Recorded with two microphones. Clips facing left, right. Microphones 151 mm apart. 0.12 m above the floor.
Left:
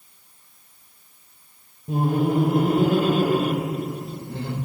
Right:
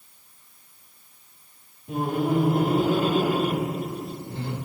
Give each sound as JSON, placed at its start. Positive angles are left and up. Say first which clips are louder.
{"t": 1.9, "sound": "laughter", "louder": "left 3 dB", "side_deg": 35, "distance_m": 1.2}